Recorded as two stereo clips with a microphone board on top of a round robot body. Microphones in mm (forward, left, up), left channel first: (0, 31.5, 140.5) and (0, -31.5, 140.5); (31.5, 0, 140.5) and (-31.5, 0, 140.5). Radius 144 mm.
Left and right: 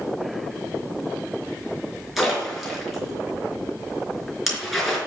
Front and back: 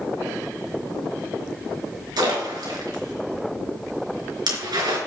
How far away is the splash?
About 4 m.